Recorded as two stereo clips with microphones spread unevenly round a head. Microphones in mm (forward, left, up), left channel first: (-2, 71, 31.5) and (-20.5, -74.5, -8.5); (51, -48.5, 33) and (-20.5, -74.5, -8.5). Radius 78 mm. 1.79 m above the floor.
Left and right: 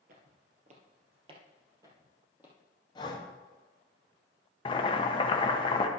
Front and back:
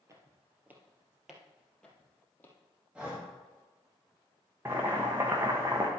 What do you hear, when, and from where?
0.1 s footsteps: 90° right, 2 m; by 2.5 s 5° right, 3 m
3.0 s breathing: 85° left, 1.3 m
4.7 s boiling: 100° left, 0.9 m